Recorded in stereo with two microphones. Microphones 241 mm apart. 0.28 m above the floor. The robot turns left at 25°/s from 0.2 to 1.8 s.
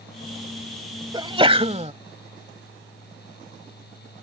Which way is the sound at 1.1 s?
20° right (ahead or behind).